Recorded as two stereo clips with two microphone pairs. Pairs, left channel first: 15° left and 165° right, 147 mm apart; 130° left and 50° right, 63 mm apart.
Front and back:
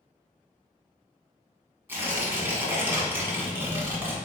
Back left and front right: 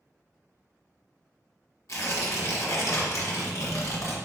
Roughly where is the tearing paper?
Behind left.